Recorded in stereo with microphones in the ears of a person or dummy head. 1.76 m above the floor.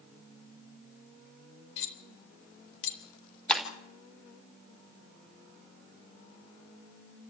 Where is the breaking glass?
5° left (ahead or behind), 2.5 m.